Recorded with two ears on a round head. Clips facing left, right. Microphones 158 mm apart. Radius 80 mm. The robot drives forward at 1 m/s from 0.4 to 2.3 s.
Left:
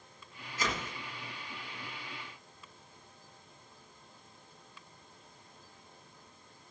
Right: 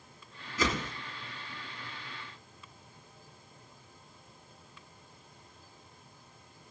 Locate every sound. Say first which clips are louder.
0.6 s a whoosh: right 5 dB; 70° right (ahead or behind), 1.7 m; by 0.9 s 65° right (ahead or behind), 1.8 m